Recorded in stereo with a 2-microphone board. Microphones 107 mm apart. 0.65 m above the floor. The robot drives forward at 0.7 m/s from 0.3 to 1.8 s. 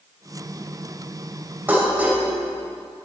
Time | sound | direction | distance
1.7 | dishes clattering | 20° right (ahead or behind) | 2.5 m